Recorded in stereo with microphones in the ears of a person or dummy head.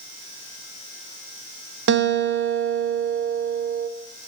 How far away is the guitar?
About 0.7 m.